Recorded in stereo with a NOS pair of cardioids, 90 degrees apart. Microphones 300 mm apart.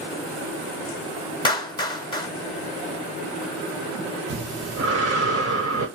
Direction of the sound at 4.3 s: 55° right.